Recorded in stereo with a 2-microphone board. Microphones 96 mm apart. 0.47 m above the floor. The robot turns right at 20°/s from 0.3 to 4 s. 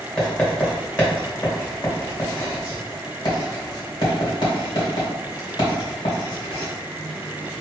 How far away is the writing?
About 1.8 m.